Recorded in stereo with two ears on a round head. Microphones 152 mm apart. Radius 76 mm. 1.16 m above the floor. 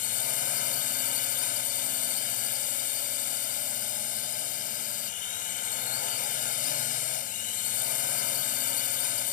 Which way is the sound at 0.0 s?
50° left (ahead or behind).